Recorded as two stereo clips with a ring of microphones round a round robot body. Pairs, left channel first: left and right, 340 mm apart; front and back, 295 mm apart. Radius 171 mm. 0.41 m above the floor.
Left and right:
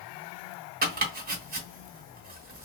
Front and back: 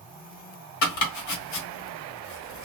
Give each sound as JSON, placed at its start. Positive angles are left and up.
{"t": 0.8, "sound": "chopping", "azimuth_deg": -25, "distance_m": 1.4}